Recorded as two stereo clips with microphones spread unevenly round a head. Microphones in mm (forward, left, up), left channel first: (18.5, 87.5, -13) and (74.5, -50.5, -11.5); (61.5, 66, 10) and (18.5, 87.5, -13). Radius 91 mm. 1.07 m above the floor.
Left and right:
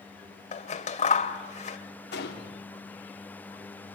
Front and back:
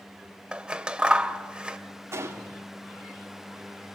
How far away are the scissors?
About 1.8 m.